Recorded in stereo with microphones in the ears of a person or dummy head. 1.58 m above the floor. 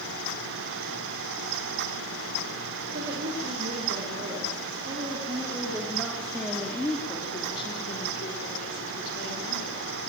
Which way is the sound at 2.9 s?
45° right (ahead or behind).